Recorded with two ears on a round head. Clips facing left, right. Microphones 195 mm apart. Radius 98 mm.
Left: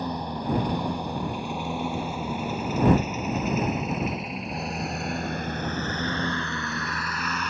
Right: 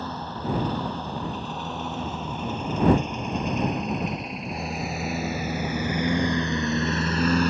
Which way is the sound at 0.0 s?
15° left (ahead or behind).